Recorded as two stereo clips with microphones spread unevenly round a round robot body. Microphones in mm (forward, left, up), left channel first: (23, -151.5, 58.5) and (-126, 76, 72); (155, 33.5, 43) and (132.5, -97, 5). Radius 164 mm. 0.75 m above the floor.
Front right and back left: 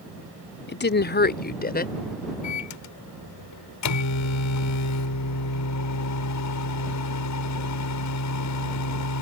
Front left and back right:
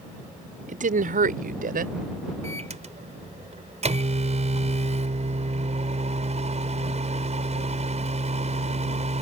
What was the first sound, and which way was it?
A woman speaking, 105° right.